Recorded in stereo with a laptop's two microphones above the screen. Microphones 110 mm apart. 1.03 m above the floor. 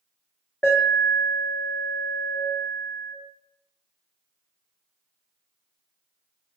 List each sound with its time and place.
0.6 s an alarm: 5° left (ahead or behind), 1.3 m